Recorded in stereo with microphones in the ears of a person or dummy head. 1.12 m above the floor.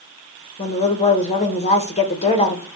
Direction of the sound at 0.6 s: 35° left (ahead or behind).